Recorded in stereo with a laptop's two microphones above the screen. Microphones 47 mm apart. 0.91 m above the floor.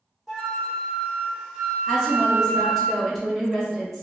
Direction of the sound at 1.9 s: 5° left (ahead or behind).